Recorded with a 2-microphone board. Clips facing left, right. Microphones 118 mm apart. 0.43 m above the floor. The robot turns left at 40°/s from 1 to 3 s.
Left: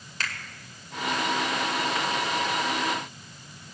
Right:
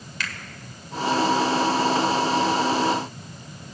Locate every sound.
0.2 s a finger snap: 40° left (ahead or behind), 1.7 m